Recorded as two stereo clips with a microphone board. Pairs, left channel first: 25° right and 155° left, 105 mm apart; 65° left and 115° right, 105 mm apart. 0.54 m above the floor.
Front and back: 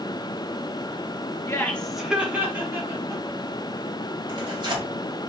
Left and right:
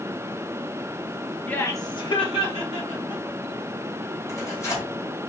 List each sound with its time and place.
1.5 s laughter: 5° left, 0.7 m; by 3.2 s 95° left, 2 m
4.3 s tearing paper: 125° left, 1.8 m